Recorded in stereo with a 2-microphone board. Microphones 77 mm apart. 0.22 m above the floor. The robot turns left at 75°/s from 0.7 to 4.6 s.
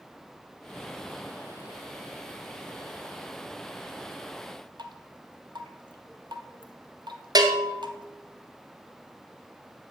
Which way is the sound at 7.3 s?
60° right (ahead or behind).